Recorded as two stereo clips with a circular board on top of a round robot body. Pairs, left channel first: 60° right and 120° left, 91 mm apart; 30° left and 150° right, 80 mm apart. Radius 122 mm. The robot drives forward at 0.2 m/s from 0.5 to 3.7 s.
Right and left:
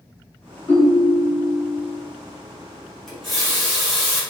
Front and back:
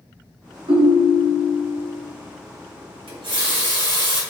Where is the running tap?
150° right, 1.2 m.